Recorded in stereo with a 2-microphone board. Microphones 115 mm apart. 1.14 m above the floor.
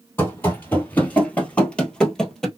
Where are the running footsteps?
20° left (ahead or behind), 1.3 m; by 2.5 s 5° left (ahead or behind), 1.3 m.